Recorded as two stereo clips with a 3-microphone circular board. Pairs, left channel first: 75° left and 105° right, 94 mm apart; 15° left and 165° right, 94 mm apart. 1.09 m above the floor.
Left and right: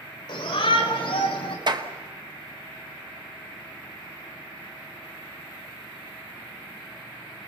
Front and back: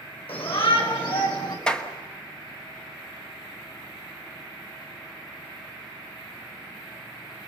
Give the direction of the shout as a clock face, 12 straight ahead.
11 o'clock.